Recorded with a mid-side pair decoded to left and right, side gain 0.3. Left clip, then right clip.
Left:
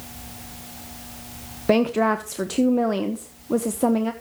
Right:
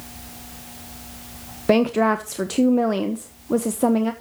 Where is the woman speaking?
15° right, 1.0 m.